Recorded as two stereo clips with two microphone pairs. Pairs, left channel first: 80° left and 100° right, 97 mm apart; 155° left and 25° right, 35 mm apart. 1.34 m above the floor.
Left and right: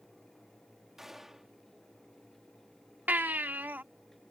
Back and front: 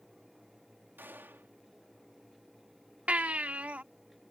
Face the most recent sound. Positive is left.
turn(degrees=-40)